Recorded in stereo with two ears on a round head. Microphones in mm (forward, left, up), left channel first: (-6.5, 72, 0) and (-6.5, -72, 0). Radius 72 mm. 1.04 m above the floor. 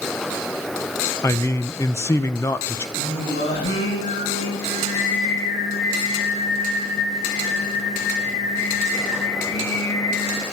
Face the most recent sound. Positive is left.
turn(degrees=80)